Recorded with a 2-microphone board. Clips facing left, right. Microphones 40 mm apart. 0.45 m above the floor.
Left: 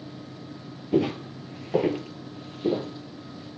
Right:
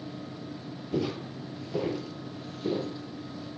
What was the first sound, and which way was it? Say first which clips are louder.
Footsteps: left 7 dB; 40° left (ahead or behind).